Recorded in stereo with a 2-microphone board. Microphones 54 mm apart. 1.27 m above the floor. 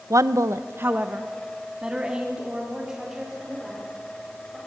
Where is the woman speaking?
70° right (ahead or behind), 0.7 m; by 4.6 s 10° right (ahead or behind), 5 m.